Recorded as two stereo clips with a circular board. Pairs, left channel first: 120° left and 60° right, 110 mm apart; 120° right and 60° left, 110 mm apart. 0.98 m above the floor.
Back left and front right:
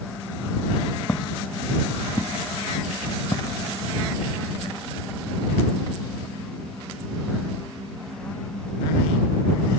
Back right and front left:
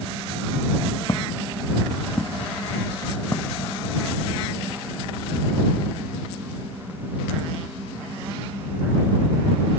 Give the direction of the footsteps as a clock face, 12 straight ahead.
6 o'clock.